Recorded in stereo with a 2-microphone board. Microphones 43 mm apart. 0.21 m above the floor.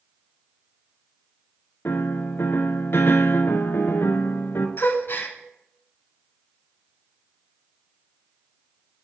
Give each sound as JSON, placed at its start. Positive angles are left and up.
{"t": 1.9, "sound": "a piano", "side_deg": 75, "distance_m": 0.5}
{"t": 4.8, "sound": "a gasp", "side_deg": 60, "distance_m": 0.6}